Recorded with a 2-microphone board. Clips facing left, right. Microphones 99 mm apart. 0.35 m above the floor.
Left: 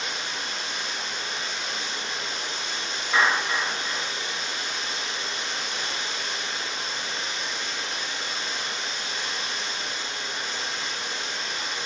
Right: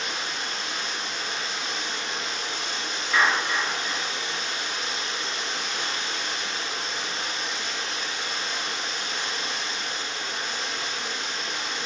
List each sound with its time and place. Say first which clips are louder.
0.0 s running water: right 1 dB; 75° right (ahead or behind), 0.8 m
3.1 s a clap: even; 10° left (ahead or behind), 1.2 m